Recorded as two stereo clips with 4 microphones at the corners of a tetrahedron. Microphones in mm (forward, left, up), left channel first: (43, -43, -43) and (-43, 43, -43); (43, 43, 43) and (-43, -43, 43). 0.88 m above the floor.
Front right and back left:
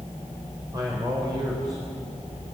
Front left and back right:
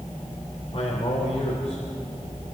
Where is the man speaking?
80° left, 3.5 m.